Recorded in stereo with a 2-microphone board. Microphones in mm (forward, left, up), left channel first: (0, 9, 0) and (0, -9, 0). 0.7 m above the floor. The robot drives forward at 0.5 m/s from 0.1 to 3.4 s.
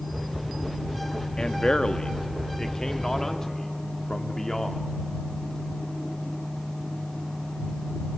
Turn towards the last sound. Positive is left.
turn(degrees=30)  # may be behind; listen again after turning